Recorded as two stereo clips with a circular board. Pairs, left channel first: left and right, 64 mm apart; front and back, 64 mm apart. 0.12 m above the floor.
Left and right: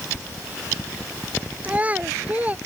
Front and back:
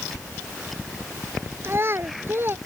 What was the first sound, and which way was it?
A child speaking, 150° right.